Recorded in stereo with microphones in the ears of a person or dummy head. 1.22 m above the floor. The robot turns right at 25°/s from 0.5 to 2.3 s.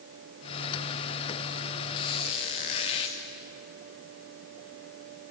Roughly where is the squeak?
Left.